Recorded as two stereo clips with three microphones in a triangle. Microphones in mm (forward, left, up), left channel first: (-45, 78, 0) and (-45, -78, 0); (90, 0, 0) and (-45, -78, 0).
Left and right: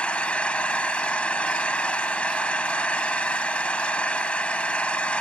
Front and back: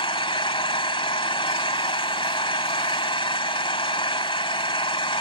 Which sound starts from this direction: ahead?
An engine running, at 0.0 s.